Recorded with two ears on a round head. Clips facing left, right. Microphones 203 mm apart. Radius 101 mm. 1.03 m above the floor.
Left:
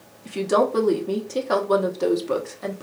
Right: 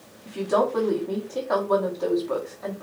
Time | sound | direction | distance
0.2 | a woman speaking | 40° left (ahead or behind) | 0.8 m